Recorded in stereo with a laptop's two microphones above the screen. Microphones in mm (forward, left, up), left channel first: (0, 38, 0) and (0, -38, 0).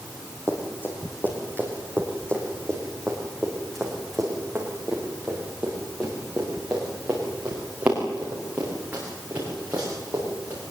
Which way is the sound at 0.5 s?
35° left (ahead or behind).